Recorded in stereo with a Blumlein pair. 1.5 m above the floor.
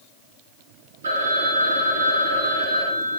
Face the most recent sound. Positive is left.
turn(degrees=-70)